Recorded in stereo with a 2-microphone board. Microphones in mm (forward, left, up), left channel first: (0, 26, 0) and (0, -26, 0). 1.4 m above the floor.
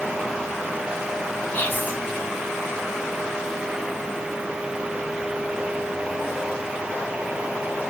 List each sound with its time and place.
1.5 s whispering: 25° left (ahead or behind), 2.0 m